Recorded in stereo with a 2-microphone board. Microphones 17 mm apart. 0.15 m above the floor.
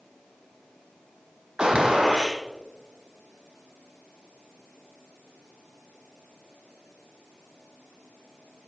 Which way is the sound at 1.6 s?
55° right (ahead or behind).